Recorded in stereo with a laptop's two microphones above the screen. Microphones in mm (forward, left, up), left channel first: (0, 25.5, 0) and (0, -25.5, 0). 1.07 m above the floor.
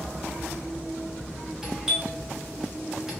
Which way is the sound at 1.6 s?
10° right (ahead or behind).